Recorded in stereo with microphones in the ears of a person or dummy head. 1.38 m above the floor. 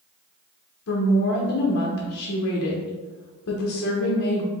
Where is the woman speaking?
70° left (ahead or behind), 0.9 m.